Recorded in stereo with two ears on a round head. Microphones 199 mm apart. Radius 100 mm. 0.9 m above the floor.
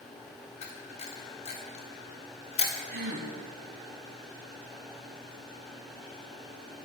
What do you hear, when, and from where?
0.6 s a camera shutter: 30° left (ahead or behind), 1.4 m
2.9 s a gasp: 45° right (ahead or behind), 2 m